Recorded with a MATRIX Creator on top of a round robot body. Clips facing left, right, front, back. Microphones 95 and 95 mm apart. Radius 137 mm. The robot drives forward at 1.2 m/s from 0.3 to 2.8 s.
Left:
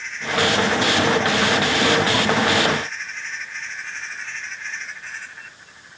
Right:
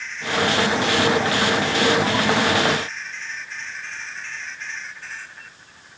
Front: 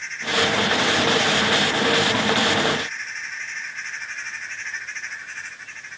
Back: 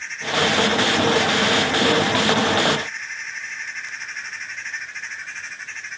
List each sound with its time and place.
Only background noise.